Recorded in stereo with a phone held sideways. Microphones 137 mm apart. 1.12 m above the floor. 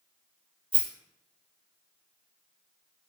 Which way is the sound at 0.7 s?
40° right (ahead or behind).